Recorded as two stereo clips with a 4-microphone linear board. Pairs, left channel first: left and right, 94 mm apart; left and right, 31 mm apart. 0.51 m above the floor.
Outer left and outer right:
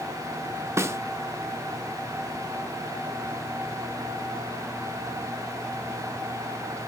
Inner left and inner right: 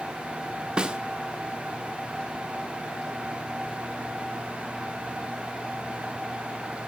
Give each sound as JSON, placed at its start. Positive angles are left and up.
{"t": 0.8, "sound": "a snare drum", "side_deg": -30, "distance_m": 0.7}